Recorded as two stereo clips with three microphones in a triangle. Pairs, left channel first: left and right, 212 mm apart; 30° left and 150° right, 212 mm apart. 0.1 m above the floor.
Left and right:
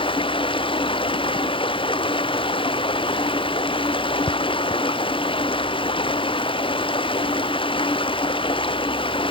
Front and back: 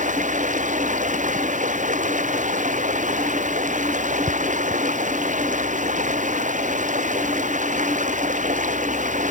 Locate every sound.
0.0 s running water: 155° left